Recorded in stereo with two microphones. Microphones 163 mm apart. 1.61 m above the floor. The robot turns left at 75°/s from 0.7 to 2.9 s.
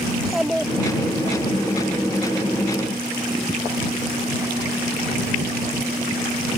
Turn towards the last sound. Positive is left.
turn(degrees=-165)